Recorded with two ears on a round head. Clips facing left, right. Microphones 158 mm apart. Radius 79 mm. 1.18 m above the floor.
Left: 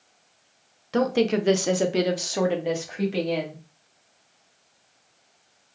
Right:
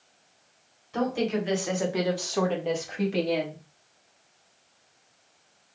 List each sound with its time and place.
0.9 s a woman speaking: 80° left, 0.9 m; by 3.6 s 5° right (ahead or behind), 1.8 m